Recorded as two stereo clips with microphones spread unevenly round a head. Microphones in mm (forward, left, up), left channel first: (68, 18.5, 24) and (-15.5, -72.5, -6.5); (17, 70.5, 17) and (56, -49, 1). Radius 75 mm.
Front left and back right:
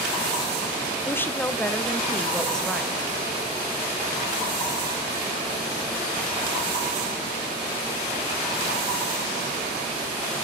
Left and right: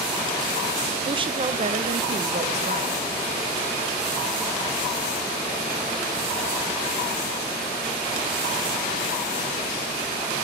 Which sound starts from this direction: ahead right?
A woman speaking, at 1.1 s.